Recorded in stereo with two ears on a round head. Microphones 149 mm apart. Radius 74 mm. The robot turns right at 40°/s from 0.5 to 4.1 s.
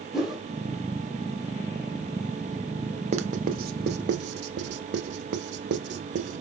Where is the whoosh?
Centre (ahead or behind), 1.1 m.